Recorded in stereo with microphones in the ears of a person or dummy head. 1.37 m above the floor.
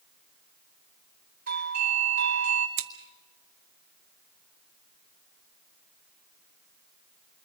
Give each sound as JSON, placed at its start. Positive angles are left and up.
{"t": 1.5, "sound": "a doorbell", "side_deg": -50, "distance_m": 3.0}
{"t": 2.8, "sound": "scissors", "side_deg": -70, "distance_m": 1.4}